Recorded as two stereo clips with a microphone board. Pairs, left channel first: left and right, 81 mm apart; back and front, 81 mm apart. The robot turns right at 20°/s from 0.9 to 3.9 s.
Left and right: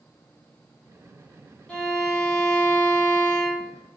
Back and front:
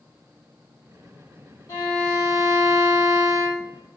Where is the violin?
160° left, 0.9 m; by 3.7 s 160° right, 0.9 m.